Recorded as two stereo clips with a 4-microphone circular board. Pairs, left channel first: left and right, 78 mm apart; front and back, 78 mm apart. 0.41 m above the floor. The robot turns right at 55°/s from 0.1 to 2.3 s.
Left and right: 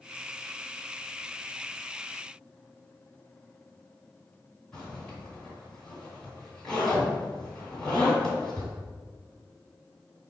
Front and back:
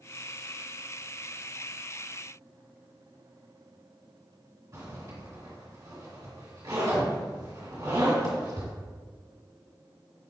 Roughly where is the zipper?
Behind.